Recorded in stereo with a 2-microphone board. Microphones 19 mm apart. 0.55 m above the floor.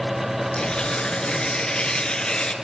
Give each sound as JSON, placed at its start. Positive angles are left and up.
{"t": 0.6, "sound": "tearing paper", "side_deg": 50, "distance_m": 5.0}